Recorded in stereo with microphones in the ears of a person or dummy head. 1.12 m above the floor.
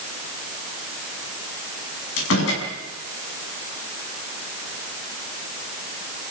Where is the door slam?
85° left, 6.5 m.